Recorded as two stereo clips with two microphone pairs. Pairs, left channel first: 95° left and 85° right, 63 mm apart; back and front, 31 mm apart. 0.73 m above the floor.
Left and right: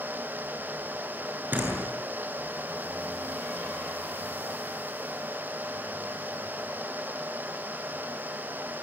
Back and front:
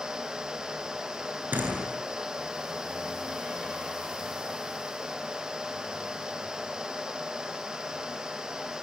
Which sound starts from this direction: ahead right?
A door slam, at 1.5 s.